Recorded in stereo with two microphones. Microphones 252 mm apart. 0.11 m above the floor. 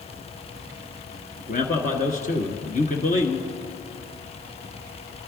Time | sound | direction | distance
1.4 | a man speaking | 35° left (ahead or behind) | 1.4 m